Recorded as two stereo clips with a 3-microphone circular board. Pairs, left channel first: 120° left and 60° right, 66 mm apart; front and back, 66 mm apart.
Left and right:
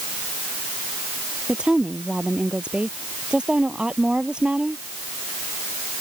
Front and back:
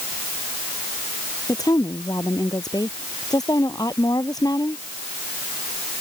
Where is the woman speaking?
15° left.